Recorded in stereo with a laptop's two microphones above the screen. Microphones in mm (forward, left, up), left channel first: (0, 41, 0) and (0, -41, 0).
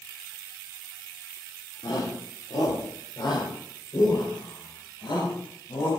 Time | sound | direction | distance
1.8 | a shout | 75° left (ahead or behind) | 3.5 m